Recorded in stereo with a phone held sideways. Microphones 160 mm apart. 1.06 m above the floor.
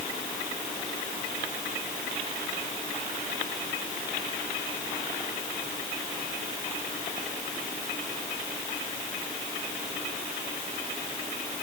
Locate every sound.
Only background noise.